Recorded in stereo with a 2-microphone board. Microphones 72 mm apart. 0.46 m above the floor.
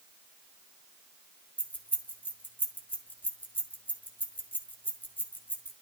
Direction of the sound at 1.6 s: 30° left (ahead or behind).